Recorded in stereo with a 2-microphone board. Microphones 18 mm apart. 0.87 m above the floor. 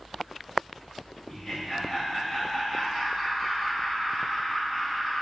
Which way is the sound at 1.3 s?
30° left (ahead or behind).